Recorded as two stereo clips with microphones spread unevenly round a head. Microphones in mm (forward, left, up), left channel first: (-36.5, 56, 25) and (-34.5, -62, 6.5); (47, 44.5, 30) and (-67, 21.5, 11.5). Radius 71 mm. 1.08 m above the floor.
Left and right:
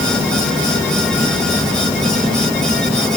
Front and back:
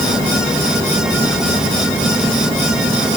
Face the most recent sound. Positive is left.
No sound to turn to.